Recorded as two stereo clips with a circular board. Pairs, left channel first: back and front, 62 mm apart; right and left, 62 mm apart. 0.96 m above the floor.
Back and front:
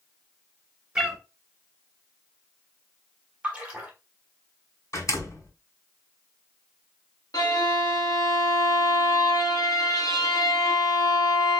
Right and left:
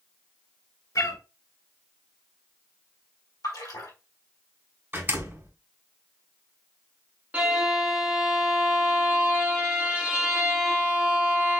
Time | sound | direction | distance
0.9 | a cat meowing | 80° right | 1.7 m
3.4 | a splash | 75° right | 1.5 m
4.9 | a door slam | 145° left | 2 m
7.3 | a violin | 160° left | 1.3 m